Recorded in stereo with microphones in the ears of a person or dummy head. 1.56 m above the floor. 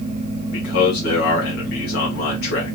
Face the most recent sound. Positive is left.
turn(degrees=60)  # may be behind; listen again after turning